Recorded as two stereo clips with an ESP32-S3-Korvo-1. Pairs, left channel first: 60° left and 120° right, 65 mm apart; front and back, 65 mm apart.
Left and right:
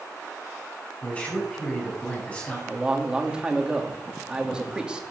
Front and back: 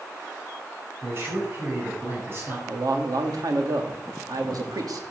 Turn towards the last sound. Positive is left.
turn(degrees=165)